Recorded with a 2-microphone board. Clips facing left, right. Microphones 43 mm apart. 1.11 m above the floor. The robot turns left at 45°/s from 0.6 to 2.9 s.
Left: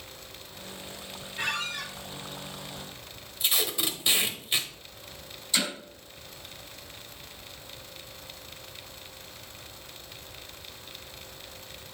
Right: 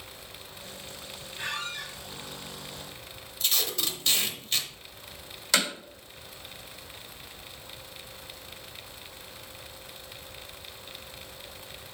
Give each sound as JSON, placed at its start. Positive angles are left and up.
{"t": 1.4, "sound": "a squeak", "side_deg": 50, "distance_m": 1.6}
{"t": 3.4, "sound": "tape being pulled", "side_deg": 15, "distance_m": 0.9}
{"t": 5.5, "sound": "hammering", "side_deg": -80, "distance_m": 3.0}